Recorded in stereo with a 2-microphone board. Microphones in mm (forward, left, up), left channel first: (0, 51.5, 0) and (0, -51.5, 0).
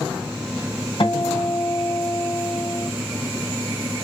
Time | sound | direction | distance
1.0 | a guitar | 55° left (ahead or behind) | 1.3 m